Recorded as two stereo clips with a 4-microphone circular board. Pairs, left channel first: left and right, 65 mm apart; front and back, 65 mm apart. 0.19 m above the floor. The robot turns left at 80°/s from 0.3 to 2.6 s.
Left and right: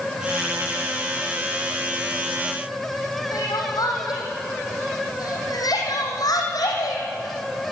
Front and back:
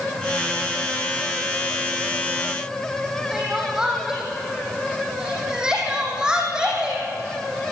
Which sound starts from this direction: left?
Crying, at 3.3 s.